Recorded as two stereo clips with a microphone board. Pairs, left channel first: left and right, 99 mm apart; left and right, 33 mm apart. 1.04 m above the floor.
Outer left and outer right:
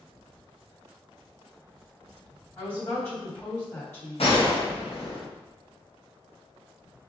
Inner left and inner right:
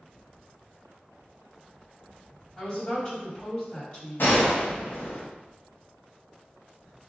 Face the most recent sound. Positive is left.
turn(degrees=70)  # may be behind; listen again after turning